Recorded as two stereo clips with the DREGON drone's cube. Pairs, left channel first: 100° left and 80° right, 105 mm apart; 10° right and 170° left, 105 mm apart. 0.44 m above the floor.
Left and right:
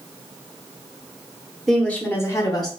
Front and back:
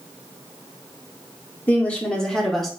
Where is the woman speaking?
15° left, 0.8 m; by 2.7 s 80° left, 1.1 m.